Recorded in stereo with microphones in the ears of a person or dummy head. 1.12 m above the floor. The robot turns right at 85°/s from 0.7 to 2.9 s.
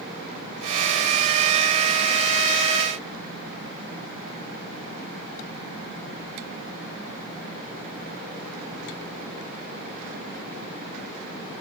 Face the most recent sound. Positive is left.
No sound to turn to.